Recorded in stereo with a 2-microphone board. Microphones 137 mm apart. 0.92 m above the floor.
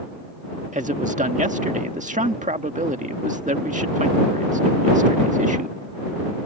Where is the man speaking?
65° right (ahead or behind).